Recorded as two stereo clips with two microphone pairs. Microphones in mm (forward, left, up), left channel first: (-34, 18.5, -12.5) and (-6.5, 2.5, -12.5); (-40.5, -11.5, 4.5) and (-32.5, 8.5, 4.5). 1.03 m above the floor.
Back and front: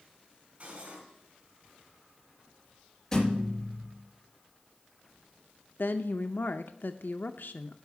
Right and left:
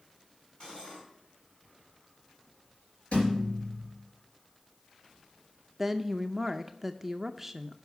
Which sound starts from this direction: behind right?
A thud, at 3.1 s.